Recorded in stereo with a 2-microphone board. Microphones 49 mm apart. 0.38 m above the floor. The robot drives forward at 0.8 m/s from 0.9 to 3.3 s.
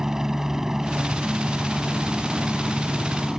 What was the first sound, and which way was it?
A helicopter, 10° right (ahead or behind).